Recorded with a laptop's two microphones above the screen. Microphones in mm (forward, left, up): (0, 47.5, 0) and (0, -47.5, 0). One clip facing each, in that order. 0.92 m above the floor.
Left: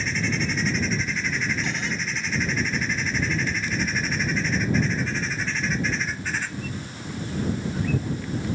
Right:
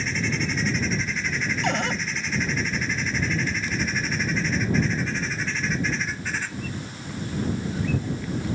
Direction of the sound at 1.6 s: 65° right (ahead or behind).